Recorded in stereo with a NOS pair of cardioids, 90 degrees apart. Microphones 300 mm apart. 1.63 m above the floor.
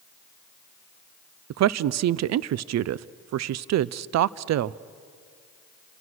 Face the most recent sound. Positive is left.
turn(degrees=-65)